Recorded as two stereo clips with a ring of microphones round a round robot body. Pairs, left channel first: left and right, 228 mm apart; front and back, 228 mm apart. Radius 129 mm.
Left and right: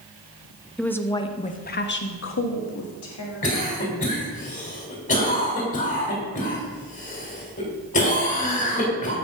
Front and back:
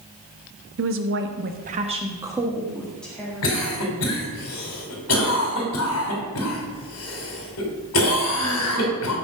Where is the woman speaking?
175° left, 1.2 m; by 3.5 s 80° left, 2 m.